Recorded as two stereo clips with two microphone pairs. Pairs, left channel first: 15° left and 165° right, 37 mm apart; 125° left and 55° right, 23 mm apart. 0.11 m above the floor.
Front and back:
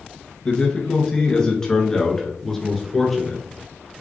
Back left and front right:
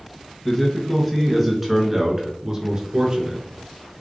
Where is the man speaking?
65° left, 1.5 m; by 3.4 s 75° right, 1.6 m.